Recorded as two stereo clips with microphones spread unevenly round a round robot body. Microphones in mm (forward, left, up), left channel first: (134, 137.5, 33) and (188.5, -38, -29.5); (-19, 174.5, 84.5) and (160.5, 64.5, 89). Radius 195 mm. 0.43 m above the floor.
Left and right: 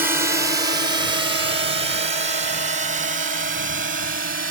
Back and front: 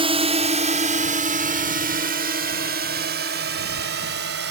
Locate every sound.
0.0 s a drone: 65° right